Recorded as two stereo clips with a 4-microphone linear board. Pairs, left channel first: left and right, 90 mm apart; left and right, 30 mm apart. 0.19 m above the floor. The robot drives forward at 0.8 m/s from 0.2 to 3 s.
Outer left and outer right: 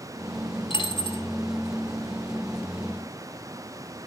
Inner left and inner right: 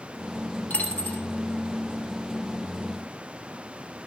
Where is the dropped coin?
55° left (ahead or behind), 2 m; by 1.2 s 65° left (ahead or behind), 2.0 m.